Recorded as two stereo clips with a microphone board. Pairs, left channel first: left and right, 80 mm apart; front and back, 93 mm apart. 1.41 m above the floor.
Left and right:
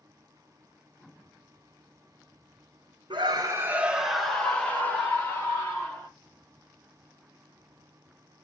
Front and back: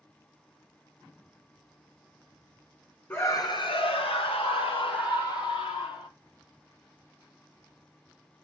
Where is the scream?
65° right, 1.1 m; by 6.1 s 30° left, 3.5 m.